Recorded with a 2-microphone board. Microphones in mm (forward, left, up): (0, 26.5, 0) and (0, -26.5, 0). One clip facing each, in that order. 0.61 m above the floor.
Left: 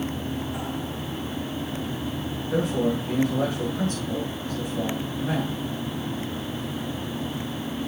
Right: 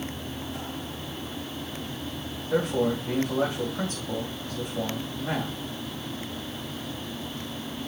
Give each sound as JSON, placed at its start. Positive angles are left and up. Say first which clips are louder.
{"t": 2.5, "sound": "a man speaking", "louder": "even", "side_deg": -15, "distance_m": 3.0}